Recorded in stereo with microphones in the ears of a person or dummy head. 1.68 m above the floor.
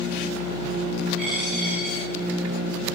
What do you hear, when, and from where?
1.2 s a dropped coin: 5° right (ahead or behind), 8.5 m